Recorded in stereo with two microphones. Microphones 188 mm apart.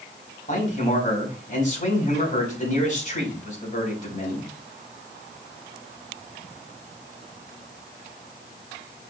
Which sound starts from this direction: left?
A man speaking, at 0.5 s.